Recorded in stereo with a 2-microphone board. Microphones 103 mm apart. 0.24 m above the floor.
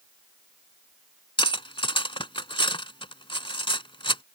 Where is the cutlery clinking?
55° left (ahead or behind).